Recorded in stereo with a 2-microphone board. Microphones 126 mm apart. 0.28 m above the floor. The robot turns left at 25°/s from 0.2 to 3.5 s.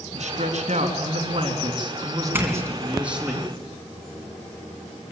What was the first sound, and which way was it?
A man speaking, 100° right.